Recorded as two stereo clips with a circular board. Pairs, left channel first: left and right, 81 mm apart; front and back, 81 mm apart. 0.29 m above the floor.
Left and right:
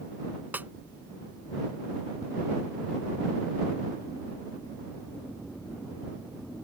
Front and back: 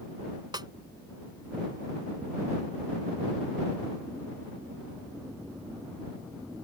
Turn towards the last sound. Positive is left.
turn(degrees=-155)